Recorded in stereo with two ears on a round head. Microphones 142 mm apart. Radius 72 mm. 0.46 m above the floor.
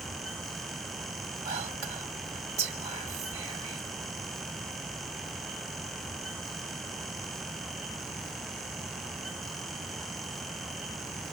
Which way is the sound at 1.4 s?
20° right (ahead or behind).